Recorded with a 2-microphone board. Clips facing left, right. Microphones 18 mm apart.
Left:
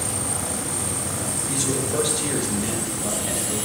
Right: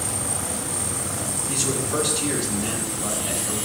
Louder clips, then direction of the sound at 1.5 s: Even; 75° right (ahead or behind).